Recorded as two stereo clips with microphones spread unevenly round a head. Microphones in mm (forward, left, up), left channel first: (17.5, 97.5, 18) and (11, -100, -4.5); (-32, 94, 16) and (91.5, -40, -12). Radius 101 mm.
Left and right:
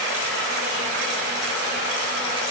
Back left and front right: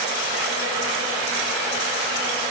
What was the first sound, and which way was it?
Only background noise.